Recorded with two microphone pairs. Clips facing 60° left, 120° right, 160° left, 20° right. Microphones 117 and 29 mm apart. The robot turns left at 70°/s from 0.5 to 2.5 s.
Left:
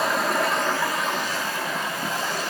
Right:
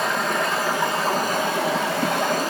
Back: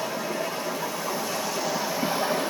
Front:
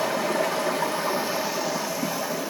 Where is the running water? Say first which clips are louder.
Even, front 5 dB; 30° right, 0.8 m; by 2.5 s 170° right, 0.8 m.